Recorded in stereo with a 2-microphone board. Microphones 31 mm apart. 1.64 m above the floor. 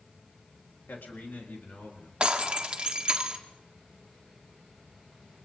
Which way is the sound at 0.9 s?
85° left.